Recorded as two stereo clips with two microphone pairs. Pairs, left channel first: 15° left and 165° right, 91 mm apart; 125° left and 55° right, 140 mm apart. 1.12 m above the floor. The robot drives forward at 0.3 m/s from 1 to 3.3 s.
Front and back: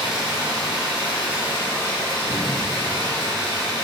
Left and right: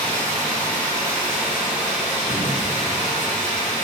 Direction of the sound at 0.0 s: 100° right.